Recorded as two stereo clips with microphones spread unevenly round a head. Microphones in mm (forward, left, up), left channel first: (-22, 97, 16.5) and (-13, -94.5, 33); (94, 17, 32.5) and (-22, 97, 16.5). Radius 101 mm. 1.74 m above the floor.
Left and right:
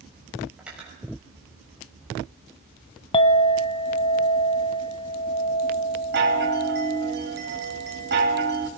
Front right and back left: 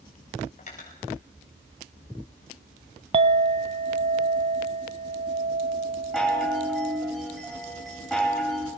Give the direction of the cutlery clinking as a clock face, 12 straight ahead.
12 o'clock.